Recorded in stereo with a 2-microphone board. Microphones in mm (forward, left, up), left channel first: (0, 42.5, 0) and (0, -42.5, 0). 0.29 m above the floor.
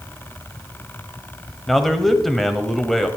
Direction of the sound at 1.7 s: Centre (ahead or behind).